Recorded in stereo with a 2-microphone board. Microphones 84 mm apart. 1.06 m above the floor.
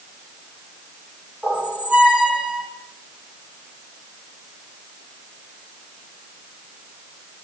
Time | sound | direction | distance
1.4 | a squeak | 10° right (ahead or behind) | 2.5 m